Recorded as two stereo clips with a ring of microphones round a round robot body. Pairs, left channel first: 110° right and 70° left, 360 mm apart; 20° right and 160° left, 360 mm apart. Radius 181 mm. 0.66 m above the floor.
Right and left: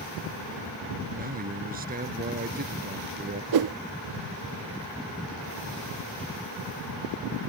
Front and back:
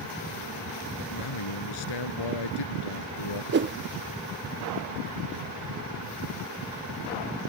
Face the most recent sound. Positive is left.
turn(degrees=100)